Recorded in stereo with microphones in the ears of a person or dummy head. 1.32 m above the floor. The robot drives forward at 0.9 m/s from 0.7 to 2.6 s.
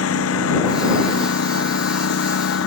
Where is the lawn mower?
85° left; by 2.7 s 75° left (ahead or behind).